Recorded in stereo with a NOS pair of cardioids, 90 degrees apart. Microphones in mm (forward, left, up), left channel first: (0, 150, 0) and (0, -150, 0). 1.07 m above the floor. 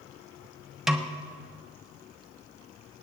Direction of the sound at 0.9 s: Straight ahead.